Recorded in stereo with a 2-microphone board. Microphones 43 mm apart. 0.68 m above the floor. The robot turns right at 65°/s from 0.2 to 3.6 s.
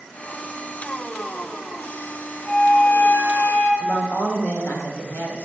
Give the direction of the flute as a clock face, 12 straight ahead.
11 o'clock.